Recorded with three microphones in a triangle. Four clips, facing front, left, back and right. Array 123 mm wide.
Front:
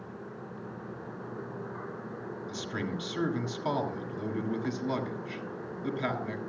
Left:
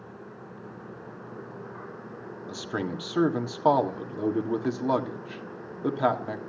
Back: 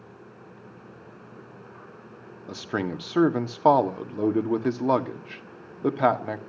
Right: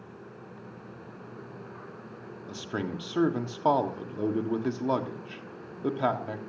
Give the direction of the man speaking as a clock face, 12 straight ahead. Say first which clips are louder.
Left 2 dB, back 8 dB; 6 o'clock.